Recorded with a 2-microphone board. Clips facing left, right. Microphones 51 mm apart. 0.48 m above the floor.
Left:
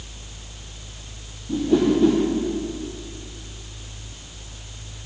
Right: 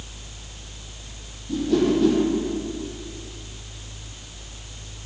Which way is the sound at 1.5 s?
15° left (ahead or behind).